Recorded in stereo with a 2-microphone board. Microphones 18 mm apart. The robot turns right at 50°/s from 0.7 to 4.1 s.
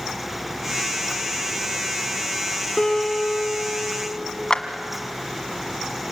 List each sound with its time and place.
2.8 s a guitar: 40° left, 4 m; by 4.4 s 105° left, 4 m
4.5 s a clap: 45° left (ahead or behind), 1.5 m